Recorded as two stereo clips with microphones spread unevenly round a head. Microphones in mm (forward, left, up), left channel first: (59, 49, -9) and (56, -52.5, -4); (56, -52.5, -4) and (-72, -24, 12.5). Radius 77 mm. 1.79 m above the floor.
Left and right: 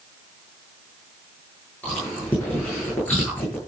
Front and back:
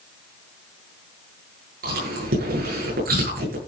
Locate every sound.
1.8 s chewing: 170° left, 9.5 m